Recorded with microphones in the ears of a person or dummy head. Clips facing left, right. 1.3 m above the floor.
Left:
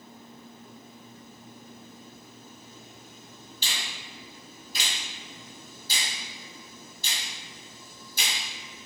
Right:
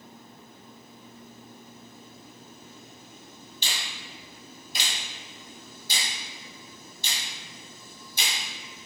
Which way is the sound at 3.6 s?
20° right (ahead or behind).